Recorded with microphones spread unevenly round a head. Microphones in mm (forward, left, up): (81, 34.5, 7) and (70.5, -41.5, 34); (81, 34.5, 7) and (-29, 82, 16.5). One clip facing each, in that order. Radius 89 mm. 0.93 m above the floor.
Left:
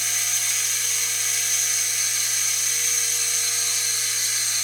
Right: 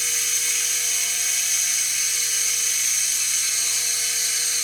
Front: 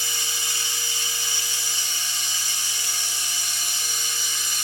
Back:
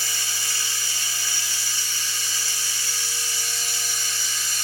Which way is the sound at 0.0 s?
50° left.